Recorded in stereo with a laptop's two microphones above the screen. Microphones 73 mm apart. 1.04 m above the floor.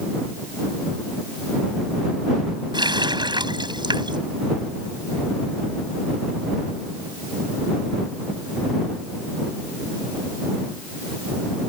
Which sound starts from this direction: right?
A running tap, at 2.7 s.